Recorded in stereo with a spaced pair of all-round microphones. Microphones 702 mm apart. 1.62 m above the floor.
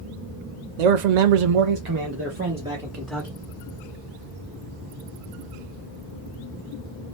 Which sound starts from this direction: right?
A man speaking, at 0.8 s.